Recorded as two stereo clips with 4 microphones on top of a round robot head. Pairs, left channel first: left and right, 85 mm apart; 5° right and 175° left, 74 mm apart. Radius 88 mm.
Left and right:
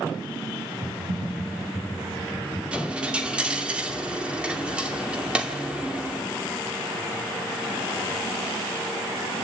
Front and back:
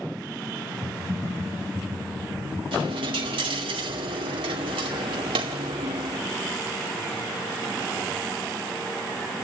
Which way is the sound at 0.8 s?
90° right.